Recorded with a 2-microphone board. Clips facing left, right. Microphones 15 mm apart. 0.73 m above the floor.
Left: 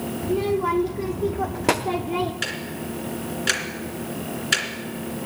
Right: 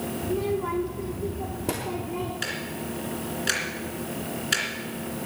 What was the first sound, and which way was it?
A child speaking, 25° left (ahead or behind).